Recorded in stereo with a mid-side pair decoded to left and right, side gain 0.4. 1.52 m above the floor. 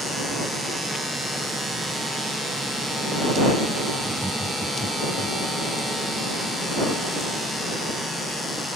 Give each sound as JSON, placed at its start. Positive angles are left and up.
{"t": 4.0, "sound": "laughter", "azimuth_deg": -10}